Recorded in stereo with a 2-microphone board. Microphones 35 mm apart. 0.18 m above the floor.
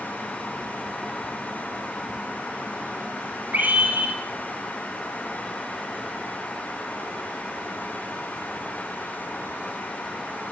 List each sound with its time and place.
3.5 s a scream: 50° right (ahead or behind), 8.5 m